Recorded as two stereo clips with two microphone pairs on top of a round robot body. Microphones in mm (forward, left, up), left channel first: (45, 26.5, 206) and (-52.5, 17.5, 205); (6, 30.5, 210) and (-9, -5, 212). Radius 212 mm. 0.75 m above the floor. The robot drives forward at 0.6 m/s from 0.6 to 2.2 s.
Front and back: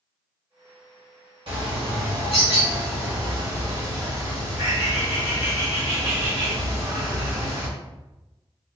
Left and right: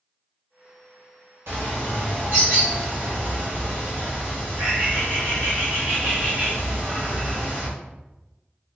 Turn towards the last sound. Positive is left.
turn(degrees=-145)